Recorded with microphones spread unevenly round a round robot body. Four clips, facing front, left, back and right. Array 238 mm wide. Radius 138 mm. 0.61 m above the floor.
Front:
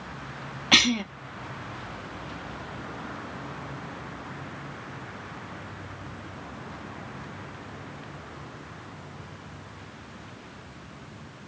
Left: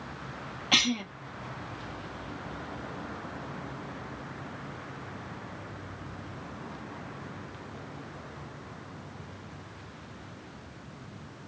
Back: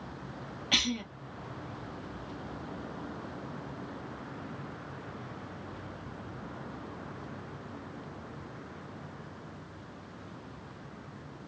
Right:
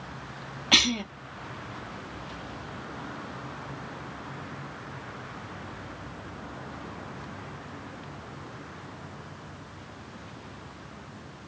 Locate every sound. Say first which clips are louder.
0.7 s a cough: right 2 dB, front 9 dB; 30° right, 0.6 m